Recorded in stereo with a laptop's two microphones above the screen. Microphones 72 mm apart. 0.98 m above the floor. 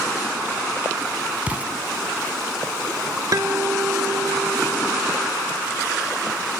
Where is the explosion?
20° right (ahead or behind).